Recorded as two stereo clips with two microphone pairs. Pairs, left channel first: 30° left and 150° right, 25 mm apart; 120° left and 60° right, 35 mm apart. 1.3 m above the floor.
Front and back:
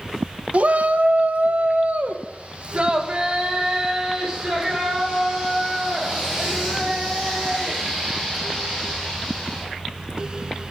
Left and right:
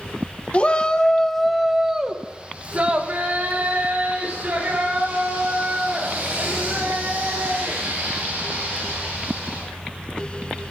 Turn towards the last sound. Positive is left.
turn(degrees=-75)